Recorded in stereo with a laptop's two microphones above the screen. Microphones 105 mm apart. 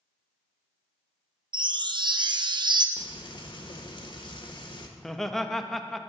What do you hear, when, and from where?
1.5 s a chime: 50° right (ahead or behind), 0.6 m
3.0 s frying: 50° left (ahead or behind), 1.2 m
5.0 s laughter: centre (ahead or behind), 0.9 m